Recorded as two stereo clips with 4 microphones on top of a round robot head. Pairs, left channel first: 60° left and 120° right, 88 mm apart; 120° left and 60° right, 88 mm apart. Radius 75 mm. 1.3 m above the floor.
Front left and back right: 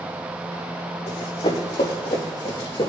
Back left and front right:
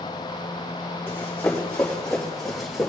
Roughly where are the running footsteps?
Ahead left.